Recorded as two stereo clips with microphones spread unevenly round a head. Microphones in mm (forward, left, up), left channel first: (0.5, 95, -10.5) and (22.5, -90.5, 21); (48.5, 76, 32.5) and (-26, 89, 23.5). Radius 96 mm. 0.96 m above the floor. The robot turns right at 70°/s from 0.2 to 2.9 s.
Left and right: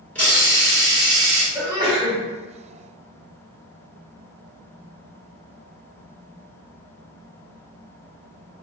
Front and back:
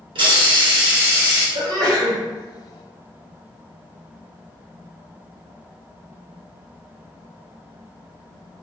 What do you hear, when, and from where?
0.1 s a hiss: straight behind, 1.7 m; by 1.4 s 90° right, 1.7 m
1.6 s a sneeze: 170° right, 1.6 m; by 2.2 s 130° right, 1.6 m